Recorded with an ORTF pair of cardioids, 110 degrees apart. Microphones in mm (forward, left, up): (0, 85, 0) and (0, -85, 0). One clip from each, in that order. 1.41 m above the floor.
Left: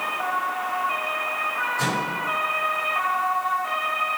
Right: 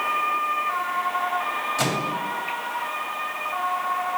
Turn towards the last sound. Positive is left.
turn(degrees=-65)